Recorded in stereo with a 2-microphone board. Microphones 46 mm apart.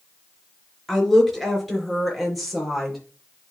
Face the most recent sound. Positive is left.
turn(degrees=0)  # may be behind; listen again after turning